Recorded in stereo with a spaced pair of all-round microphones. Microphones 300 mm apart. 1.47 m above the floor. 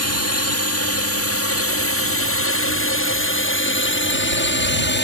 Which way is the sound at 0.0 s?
55° left (ahead or behind).